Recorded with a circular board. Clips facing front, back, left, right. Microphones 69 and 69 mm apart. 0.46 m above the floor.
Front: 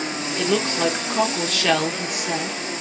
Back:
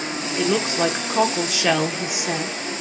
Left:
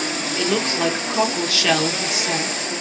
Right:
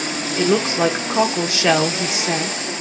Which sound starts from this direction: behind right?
A woman speaking, at 0.4 s.